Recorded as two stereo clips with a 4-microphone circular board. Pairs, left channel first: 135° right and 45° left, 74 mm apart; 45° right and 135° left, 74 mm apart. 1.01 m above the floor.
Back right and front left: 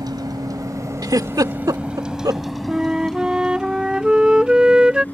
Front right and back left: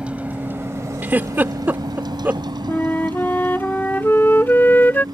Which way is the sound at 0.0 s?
60° left.